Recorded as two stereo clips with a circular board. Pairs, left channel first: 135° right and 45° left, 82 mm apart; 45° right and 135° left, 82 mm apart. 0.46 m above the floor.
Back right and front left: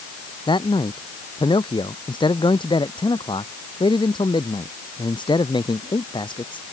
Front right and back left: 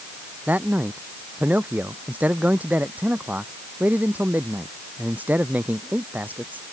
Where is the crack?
I don't hear a crack.